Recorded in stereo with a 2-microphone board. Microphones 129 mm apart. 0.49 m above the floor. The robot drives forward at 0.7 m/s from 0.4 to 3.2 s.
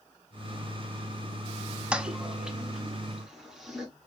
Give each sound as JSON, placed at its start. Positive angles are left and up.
{"t": 1.9, "sound": "a toilet flushing", "side_deg": -10, "distance_m": 0.5}